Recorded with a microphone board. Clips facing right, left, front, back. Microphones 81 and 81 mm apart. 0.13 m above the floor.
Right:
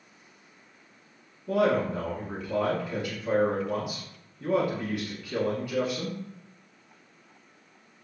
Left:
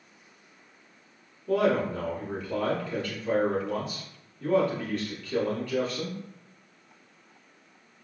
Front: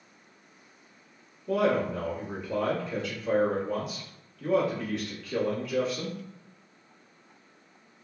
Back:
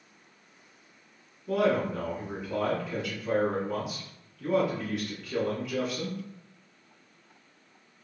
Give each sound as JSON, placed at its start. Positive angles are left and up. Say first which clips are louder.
{"t": 1.5, "sound": "a man speaking", "louder": "even, even", "azimuth_deg": -105, "distance_m": 1.1}